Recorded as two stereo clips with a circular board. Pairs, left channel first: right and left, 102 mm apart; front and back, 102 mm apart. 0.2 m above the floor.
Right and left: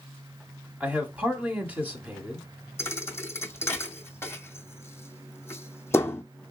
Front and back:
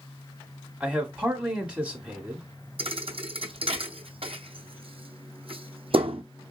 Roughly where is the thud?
Behind right.